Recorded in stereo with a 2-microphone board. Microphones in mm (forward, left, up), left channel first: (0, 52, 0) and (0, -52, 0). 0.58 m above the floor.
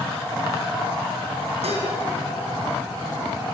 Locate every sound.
1.6 s dishes clattering: 80° right, 3 m